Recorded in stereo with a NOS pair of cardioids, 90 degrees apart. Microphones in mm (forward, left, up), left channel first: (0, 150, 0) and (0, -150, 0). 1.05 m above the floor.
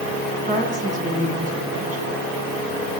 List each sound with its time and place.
0.5 s a woman speaking: 25° right, 8.5 m